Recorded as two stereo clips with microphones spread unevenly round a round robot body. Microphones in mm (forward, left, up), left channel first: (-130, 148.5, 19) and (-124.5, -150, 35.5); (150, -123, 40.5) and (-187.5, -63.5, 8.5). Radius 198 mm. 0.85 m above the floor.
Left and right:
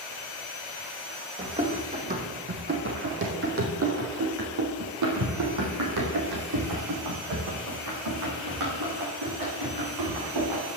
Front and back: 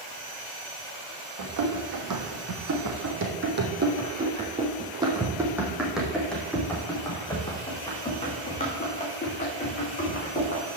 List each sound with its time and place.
1.4 s running footsteps: 160° right, 3 m; by 10.6 s 75° right, 5.5 m